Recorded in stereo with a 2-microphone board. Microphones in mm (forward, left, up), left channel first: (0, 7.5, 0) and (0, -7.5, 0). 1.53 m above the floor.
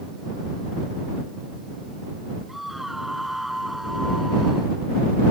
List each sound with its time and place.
2.5 s a scream: 15° right (ahead or behind)